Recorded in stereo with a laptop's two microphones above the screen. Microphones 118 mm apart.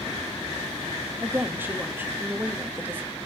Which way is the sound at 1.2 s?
15° right (ahead or behind).